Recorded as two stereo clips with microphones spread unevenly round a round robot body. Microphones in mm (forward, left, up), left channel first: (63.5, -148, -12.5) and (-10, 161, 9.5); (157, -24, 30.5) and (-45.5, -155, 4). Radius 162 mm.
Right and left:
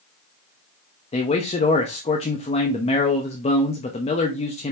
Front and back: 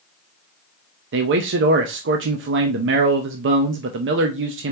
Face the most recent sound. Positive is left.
turn(degrees=-140)